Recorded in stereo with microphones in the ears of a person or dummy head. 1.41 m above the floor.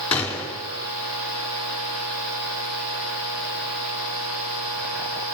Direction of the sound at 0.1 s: 10° left (ahead or behind).